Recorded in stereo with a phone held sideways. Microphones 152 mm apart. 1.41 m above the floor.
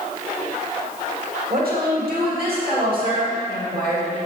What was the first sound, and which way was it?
A woman speaking, 80° right.